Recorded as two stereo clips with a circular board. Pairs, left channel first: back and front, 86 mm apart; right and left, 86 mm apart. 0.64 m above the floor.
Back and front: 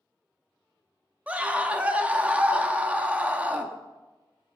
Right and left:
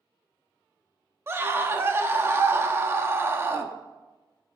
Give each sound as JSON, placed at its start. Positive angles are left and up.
{"t": 1.3, "sound": "a scream", "azimuth_deg": 60, "distance_m": 0.9}